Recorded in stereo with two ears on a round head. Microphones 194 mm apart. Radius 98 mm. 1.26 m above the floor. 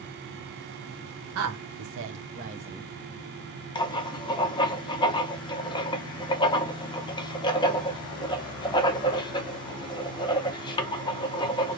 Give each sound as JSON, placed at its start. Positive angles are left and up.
{"t": 1.4, "sound": "a woman speaking", "side_deg": -70, "distance_m": 0.9}
{"t": 3.8, "sound": "writing", "side_deg": 20, "distance_m": 0.5}